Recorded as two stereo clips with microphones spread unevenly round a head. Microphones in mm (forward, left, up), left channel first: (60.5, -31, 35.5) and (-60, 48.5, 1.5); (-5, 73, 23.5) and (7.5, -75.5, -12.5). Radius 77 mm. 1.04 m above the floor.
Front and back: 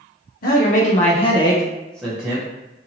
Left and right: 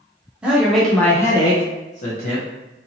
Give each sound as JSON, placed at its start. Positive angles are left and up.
{"t": 0.4, "sound": "a man speaking", "azimuth_deg": -15, "distance_m": 0.9}